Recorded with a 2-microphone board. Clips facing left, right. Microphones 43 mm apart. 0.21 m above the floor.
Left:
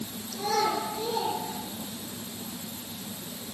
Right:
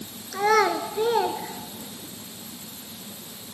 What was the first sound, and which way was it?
A child speaking, 70° right (ahead or behind).